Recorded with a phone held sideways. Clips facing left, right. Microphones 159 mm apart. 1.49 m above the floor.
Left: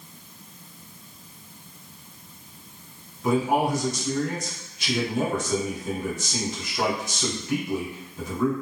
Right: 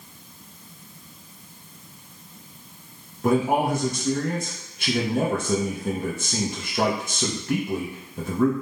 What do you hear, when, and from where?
3.2 s a man speaking: 55° right (ahead or behind), 0.6 m